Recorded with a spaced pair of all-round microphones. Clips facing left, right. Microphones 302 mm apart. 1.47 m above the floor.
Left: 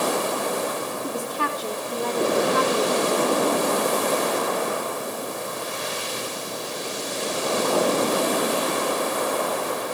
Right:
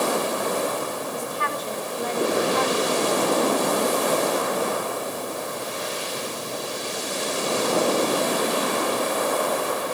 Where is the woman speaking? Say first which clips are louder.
Left 2 dB; 85° left, 4.5 m.